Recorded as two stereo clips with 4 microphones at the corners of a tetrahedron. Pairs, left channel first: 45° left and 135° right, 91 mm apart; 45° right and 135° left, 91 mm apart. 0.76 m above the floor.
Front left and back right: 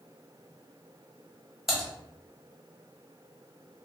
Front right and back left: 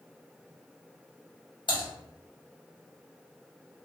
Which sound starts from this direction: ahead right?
Typing on a keyboard, at 1.7 s.